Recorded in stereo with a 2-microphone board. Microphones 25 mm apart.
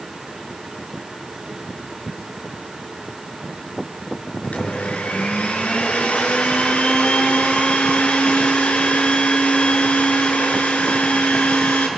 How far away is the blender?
About 3 m.